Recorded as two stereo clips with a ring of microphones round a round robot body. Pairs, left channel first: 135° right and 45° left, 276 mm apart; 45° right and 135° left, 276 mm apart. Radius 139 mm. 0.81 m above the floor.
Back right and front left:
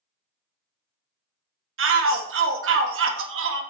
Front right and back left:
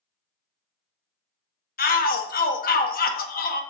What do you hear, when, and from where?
1.8 s a shout: 10° left, 1.2 m